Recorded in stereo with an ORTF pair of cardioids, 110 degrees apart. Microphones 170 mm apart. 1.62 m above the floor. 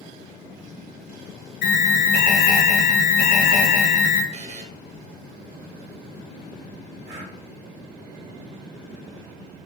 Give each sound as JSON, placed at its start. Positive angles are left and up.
{"t": 1.6, "sound": "an alarm", "azimuth_deg": 70, "distance_m": 0.8}
{"t": 4.3, "sound": "a buzzer", "azimuth_deg": -45, "distance_m": 0.6}
{"t": 7.0, "sound": "breathing", "azimuth_deg": -50, "distance_m": 1.4}